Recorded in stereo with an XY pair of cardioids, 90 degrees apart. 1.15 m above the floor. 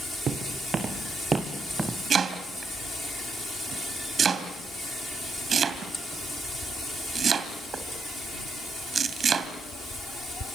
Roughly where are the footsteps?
Ahead right.